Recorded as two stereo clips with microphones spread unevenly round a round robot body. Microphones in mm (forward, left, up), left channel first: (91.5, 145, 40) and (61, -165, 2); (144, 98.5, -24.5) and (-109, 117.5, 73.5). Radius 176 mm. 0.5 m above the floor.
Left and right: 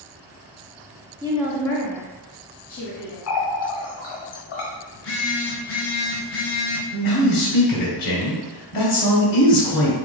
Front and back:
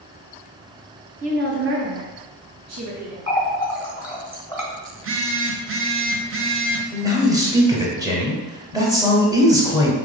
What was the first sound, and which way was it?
A woman speaking, 105° right.